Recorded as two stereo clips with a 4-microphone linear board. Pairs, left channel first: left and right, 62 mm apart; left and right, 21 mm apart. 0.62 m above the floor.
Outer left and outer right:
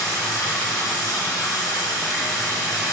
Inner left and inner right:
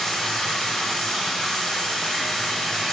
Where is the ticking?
I don't hear ticking.